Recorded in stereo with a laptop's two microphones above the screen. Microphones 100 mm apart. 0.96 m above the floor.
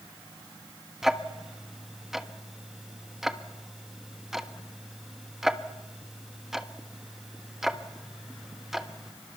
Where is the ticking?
5° right (ahead or behind), 1.2 m.